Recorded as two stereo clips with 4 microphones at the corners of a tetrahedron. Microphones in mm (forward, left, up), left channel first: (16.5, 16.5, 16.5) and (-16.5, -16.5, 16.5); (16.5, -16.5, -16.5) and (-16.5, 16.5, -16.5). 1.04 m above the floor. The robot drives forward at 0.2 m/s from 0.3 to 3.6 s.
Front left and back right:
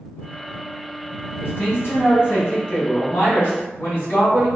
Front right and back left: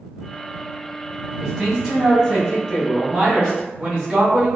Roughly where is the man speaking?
Left.